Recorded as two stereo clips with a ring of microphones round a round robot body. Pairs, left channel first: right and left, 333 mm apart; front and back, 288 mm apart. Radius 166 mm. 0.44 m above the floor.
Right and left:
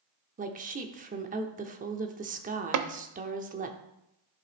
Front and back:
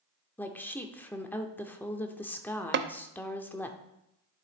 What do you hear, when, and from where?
0.4 s a woman speaking: 75° left, 0.7 m
2.7 s tapping: 130° left, 0.6 m